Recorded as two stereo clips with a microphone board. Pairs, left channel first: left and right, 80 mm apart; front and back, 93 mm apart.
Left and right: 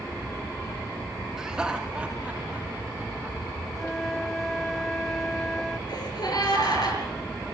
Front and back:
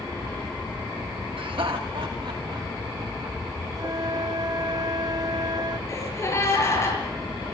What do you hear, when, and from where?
1.4 s laughter: 170° right, 1.1 m; by 3.6 s 160° right, 4.5 m
3.8 s a flute: 175° left, 1.2 m
5.9 s a gasp: 60° left, 6.5 m